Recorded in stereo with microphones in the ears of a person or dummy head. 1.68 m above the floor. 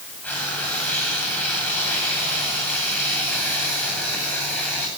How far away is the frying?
About 9.5 m.